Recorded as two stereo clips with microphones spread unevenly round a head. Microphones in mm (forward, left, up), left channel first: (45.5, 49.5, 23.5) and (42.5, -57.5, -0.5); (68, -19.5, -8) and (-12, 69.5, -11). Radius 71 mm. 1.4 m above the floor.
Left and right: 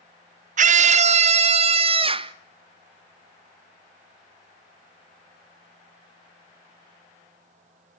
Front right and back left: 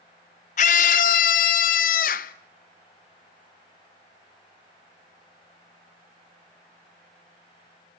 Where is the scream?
85° right, 0.6 m; by 2.3 s 50° right, 1.4 m.